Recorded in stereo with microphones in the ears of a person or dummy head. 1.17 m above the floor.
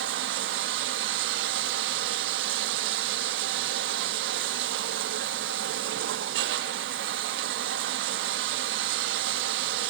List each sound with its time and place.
0.0 s running water: 55° right (ahead or behind), 0.7 m